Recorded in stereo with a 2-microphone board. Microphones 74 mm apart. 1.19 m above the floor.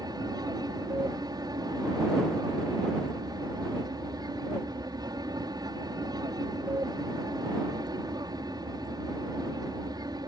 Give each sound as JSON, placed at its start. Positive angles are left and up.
{"t": 0.0, "sound": "an aircraft", "side_deg": -60}